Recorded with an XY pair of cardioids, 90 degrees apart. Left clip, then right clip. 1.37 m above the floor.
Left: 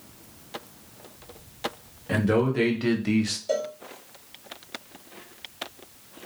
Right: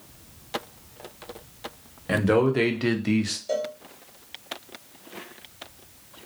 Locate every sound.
2.1 s a man speaking: 45° right, 0.9 m; by 3.4 s 5° left, 0.5 m
3.5 s a cowbell: 15° left, 0.8 m